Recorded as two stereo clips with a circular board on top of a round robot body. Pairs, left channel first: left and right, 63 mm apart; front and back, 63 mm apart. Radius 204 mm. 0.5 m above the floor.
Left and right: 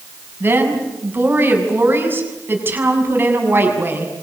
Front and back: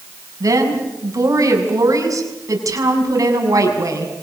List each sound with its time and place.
0.4 s a woman speaking: 145° right, 6.5 m